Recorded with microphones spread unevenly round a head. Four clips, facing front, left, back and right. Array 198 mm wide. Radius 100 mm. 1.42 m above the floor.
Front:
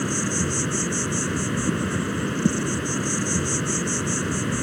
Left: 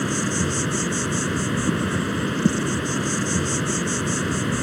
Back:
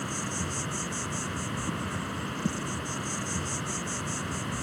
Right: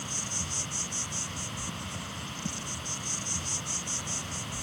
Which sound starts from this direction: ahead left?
An insect, at 0.0 s.